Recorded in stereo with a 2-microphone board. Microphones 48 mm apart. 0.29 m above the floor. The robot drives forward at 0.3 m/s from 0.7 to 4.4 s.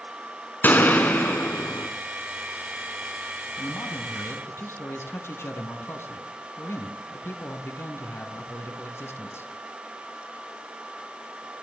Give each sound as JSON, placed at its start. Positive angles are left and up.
{"t": 0.6, "sound": "a gunshot", "side_deg": 40, "distance_m": 2.5}
{"t": 3.6, "sound": "a man speaking", "side_deg": 65, "distance_m": 3.5}